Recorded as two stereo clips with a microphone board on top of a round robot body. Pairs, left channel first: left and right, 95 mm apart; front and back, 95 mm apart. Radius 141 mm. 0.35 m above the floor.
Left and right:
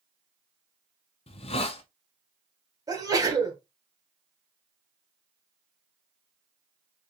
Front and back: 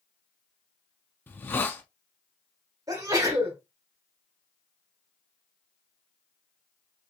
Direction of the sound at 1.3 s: 70° left.